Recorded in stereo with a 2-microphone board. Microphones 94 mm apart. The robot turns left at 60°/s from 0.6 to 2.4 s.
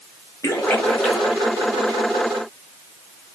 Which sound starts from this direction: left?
A splash, at 0.4 s.